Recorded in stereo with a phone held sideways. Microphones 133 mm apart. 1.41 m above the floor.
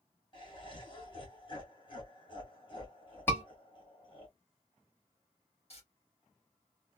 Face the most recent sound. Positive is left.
turn(degrees=50)  # may be behind; listen again after turning